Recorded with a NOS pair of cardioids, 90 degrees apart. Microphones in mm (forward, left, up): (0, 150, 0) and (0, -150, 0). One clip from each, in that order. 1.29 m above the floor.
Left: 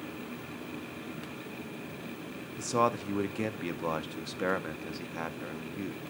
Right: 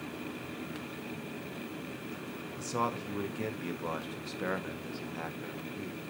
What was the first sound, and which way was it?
A man speaking, 30° left.